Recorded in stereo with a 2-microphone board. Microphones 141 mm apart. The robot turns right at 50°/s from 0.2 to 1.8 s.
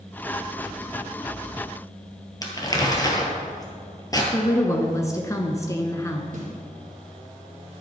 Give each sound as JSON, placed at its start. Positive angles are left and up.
{"t": 2.4, "sound": "crumpling", "side_deg": 25, "distance_m": 1.8}
{"t": 4.3, "sound": "a woman speaking", "side_deg": 25, "distance_m": 1.1}
{"t": 6.3, "sound": "a snare drum", "side_deg": -70, "distance_m": 4.5}